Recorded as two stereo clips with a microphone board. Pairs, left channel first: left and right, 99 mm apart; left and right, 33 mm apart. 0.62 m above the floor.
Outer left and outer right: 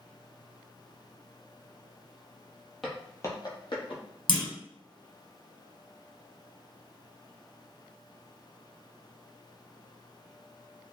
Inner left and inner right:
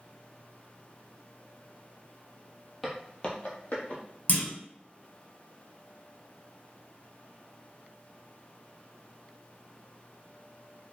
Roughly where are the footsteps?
Centre.